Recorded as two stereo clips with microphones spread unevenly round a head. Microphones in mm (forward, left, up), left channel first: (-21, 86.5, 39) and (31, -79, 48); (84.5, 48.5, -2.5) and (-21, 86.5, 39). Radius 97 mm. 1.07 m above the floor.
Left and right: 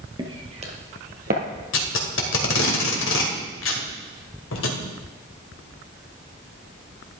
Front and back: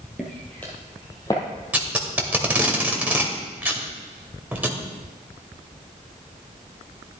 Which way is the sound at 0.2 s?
130° right.